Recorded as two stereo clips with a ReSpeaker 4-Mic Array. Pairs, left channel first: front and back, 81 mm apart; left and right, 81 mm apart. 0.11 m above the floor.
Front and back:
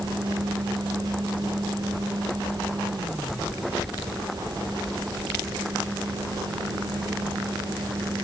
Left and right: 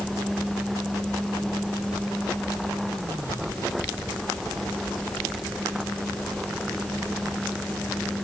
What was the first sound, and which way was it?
Only background noise.